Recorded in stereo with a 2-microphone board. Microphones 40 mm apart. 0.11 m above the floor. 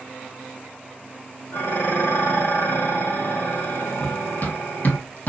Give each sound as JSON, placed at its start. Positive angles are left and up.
{"t": 1.5, "sound": "dishes clattering", "side_deg": 70, "distance_m": 2.5}
{"t": 4.0, "sound": "running footsteps", "side_deg": 55, "distance_m": 3.0}